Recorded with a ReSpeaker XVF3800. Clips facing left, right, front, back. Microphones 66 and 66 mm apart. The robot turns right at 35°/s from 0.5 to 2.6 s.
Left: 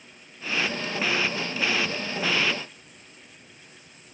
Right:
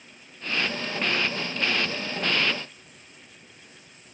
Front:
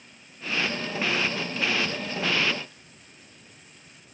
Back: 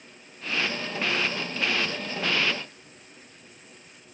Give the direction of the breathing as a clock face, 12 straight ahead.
No breathing in this recording.